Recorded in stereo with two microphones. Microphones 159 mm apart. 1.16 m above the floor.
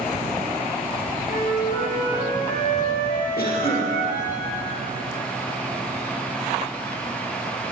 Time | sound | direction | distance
1.3 | a flute | 60° left (ahead or behind) | 1.7 m
3.4 | a cough | 75° left (ahead or behind) | 1.6 m